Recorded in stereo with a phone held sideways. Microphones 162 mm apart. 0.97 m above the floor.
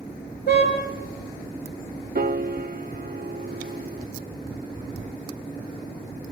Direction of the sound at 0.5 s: 85° left.